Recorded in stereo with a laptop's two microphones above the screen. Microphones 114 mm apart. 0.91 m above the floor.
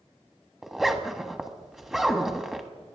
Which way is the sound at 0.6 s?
5° right (ahead or behind).